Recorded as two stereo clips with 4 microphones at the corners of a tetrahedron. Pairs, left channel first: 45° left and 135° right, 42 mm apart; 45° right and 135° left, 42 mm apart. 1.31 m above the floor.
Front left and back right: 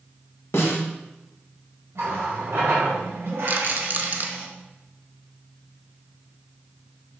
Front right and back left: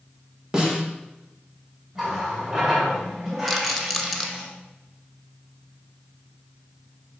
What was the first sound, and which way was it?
A snare drum, 65° left.